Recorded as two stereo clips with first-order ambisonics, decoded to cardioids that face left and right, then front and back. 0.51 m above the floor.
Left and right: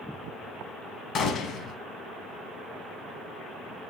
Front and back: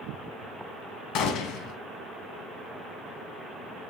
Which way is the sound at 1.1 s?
35° left.